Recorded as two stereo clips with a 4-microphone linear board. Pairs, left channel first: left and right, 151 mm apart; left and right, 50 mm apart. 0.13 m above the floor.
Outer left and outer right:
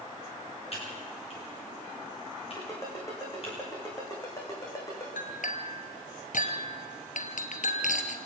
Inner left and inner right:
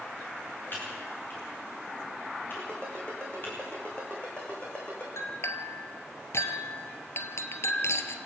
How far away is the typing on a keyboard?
About 9.5 m.